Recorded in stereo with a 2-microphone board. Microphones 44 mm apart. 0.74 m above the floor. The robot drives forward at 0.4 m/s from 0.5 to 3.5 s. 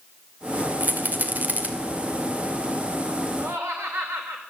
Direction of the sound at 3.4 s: 70° right (ahead or behind).